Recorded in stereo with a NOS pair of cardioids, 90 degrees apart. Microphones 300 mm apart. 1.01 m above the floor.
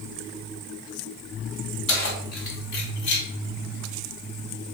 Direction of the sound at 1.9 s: 45° left.